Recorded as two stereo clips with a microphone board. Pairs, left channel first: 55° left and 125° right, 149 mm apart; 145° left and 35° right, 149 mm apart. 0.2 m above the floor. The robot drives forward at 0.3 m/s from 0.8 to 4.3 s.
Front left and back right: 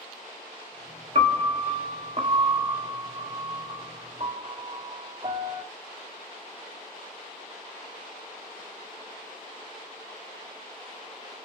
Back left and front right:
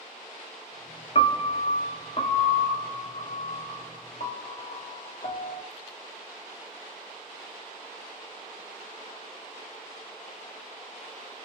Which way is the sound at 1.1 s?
165° right.